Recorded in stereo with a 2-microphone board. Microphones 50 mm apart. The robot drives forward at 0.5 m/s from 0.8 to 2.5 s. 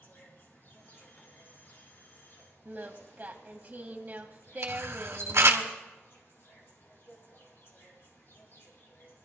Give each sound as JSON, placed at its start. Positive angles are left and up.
{"t": 0.0, "sound": "an insect", "side_deg": 50, "distance_m": 3.5}
{"t": 2.6, "sound": "singing", "side_deg": -40, "distance_m": 1.2}
{"t": 4.6, "sound": "a camera shutter", "side_deg": -70, "distance_m": 1.4}